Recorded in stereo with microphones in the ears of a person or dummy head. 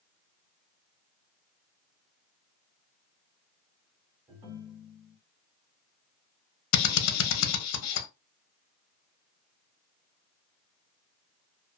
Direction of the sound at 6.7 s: 85° left.